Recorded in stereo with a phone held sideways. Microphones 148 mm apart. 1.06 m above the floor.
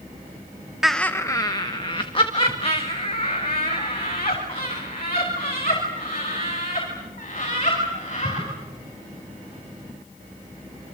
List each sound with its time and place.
0.8 s laughter: 5° right (ahead or behind), 0.6 m; by 8.4 s 50° left (ahead or behind), 7.5 m